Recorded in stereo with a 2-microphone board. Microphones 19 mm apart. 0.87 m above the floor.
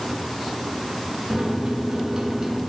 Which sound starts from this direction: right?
A microwave, at 1.3 s.